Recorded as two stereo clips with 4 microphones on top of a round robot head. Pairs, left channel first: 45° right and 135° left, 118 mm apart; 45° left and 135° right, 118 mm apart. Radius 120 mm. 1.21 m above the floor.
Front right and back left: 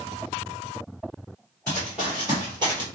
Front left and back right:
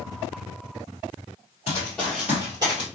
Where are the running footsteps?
20° left, 1.3 m; by 2.9 s straight behind, 1.6 m.